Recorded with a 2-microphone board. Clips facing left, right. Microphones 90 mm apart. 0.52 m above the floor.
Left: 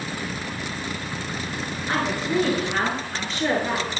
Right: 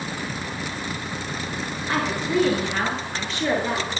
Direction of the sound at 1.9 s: 30° left (ahead or behind).